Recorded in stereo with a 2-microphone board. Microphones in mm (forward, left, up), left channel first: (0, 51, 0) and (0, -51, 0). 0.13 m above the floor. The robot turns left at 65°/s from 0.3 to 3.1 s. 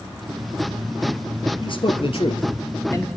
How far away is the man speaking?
About 2 m.